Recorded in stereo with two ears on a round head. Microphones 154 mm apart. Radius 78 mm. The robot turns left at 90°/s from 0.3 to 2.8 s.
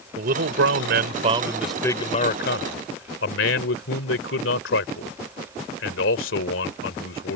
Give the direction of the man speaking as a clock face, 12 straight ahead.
2 o'clock.